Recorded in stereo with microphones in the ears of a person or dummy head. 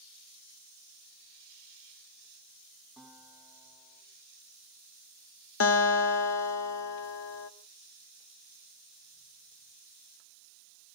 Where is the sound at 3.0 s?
5° left (ahead or behind), 9 m.